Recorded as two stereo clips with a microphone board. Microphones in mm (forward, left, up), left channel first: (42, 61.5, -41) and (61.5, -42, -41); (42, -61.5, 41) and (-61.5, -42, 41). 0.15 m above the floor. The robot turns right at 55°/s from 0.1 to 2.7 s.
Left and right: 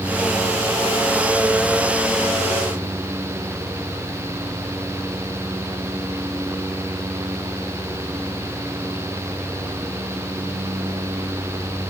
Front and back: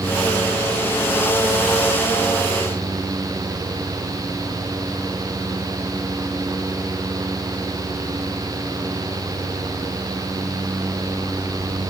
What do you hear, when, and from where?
Only background noise.